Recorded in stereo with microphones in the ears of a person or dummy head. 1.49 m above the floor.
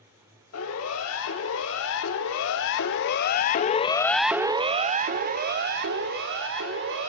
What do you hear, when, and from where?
0.5 s a siren: 85° left, 5.5 m; by 7.1 s 65° right (ahead or behind), 5 m